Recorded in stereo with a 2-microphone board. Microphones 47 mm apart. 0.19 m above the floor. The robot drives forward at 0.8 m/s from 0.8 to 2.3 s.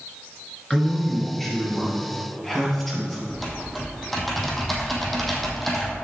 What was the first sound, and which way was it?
A man speaking, 10° left (ahead or behind).